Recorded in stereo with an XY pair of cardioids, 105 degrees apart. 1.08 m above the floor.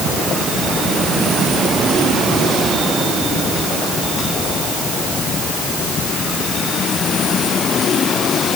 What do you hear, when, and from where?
Only background noise.